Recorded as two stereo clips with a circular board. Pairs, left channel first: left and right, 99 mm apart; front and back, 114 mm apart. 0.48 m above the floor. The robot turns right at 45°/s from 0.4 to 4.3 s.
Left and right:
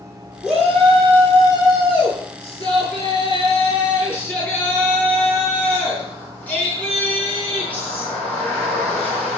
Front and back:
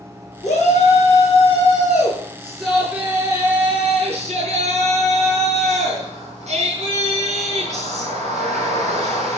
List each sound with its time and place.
0.4 s a shout: 10° right, 7 m; by 9.4 s 165° left, 7 m